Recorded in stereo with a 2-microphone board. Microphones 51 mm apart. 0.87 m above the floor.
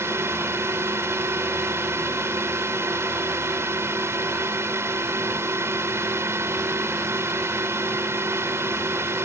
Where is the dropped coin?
I don't hear a dropped coin.